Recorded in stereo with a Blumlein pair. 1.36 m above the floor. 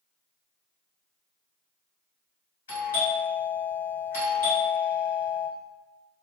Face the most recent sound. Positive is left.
turn(degrees=65)